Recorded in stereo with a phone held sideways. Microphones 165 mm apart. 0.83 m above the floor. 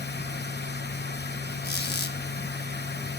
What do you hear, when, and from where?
0.0 s a machine running: 75° left (ahead or behind), 1.8 m
1.6 s a squeak: 75° left (ahead or behind), 2.5 m